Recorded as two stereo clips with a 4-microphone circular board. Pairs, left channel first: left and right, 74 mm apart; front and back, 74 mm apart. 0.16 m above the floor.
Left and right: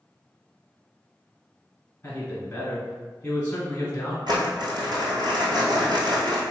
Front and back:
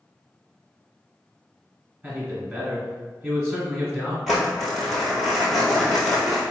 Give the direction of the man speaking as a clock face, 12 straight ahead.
8 o'clock.